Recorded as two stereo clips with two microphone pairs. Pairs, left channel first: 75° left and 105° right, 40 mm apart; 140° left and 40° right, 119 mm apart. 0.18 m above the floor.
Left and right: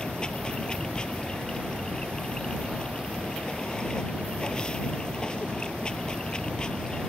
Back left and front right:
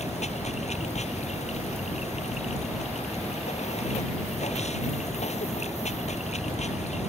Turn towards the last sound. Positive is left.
turn(degrees=140)